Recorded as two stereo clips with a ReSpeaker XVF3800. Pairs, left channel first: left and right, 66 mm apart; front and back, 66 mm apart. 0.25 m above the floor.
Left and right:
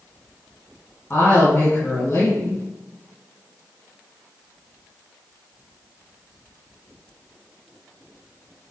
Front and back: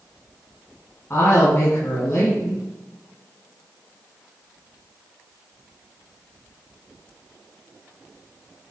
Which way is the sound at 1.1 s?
45° left.